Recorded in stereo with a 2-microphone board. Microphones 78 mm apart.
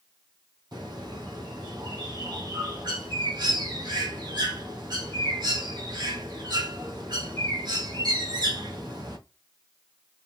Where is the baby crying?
No baby crying in this recording.